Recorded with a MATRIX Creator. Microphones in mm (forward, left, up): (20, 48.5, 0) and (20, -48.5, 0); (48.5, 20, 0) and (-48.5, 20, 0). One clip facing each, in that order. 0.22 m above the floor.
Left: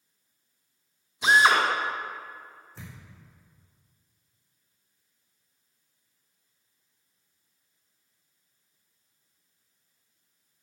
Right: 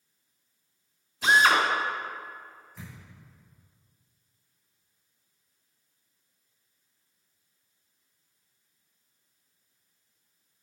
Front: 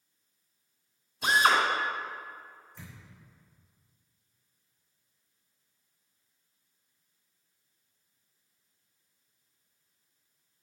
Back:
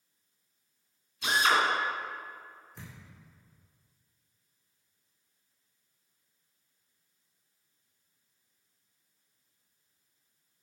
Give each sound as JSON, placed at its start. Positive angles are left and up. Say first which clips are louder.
{"t": 1.2, "sound": "a drill", "louder": "left 1 dB, front 2 dB", "azimuth_deg": 20, "distance_m": 2.0}
{"t": 2.8, "sound": "a thud", "louder": "right 1 dB, back 1 dB", "azimuth_deg": 150, "distance_m": 3.0}